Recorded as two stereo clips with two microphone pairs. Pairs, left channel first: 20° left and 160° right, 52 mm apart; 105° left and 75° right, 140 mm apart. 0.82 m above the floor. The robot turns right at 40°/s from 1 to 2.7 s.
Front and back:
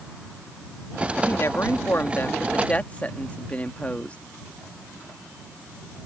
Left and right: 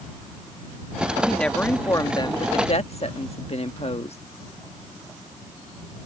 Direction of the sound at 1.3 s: 15° left.